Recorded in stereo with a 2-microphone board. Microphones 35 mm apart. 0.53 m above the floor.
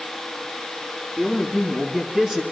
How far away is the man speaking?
About 5 m.